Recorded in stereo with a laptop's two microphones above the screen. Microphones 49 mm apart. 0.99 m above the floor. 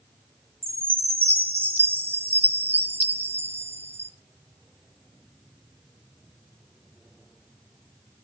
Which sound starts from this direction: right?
A chime, at 0.6 s.